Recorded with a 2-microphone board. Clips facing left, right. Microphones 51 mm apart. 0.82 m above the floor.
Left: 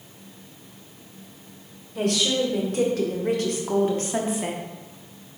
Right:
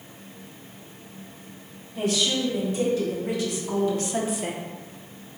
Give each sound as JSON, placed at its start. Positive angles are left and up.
{"t": 1.9, "sound": "a woman speaking", "side_deg": 70, "distance_m": 3.0}